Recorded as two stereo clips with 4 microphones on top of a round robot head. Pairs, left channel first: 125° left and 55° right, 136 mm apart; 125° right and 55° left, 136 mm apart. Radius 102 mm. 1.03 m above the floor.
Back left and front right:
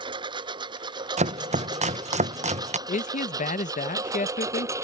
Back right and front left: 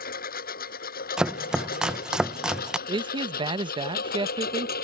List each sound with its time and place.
0.0 s a lawn mower: 115° right; by 4.8 s 125° right
1.2 s chopping: 30° right
2.9 s a man speaking: 105° left